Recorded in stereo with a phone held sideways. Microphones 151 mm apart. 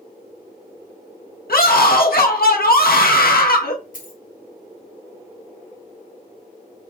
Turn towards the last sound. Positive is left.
turn(degrees=60)  # may be behind; listen again after turning